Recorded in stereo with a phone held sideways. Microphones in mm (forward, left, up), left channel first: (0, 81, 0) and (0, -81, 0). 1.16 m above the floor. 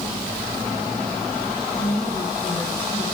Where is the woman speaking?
10° left (ahead or behind), 6 m.